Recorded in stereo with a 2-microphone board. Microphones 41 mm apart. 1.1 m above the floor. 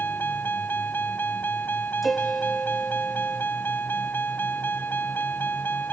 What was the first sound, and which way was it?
A vehicle, 60° left (ahead or behind).